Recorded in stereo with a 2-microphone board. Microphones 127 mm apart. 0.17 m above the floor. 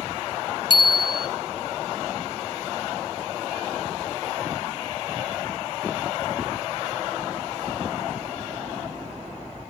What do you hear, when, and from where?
0.7 s a bicycle bell: 40° left (ahead or behind), 2.5 m